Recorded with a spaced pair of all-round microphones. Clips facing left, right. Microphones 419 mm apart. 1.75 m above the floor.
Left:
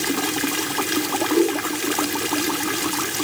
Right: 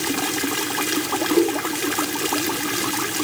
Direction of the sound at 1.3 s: 80° right.